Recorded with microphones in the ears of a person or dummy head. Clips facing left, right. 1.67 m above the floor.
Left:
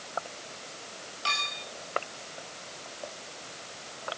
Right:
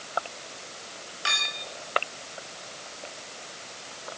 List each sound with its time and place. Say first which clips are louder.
1.2 s a clink: even; 25° right (ahead or behind), 4 m